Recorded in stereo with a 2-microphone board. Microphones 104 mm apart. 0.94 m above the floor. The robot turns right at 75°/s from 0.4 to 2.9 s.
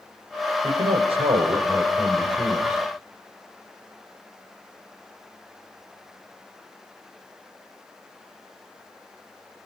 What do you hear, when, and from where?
0.6 s a man speaking: 110° right, 4.5 m; by 2.8 s 55° left, 4.5 m